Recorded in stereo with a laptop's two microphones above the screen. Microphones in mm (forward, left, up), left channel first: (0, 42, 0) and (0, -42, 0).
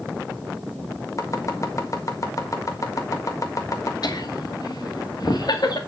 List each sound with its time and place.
1.2 s chopping: 45° left (ahead or behind), 1.5 m
4.0 s laughter: 60° left (ahead or behind), 2 m